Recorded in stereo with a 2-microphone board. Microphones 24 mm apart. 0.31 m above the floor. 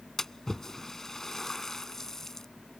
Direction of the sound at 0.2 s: 15° left (ahead or behind).